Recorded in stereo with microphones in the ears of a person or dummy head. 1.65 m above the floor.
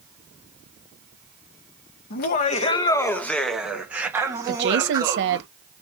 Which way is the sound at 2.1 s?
55° left (ahead or behind).